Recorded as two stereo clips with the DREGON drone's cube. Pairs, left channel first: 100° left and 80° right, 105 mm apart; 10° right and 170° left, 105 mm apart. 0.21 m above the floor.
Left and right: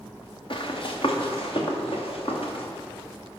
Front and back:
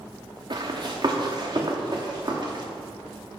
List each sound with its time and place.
0.5 s running footsteps: 135° left, 1.3 m; by 2.6 s 125° left, 2.5 m